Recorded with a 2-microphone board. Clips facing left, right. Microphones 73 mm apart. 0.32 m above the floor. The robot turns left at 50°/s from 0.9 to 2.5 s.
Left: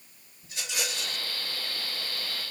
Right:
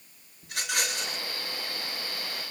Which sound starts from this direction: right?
A rattle, at 0.4 s.